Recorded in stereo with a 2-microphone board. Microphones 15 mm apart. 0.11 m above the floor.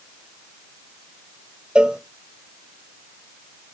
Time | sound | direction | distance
1.8 | a cowbell | 70° right (ahead or behind) | 0.7 m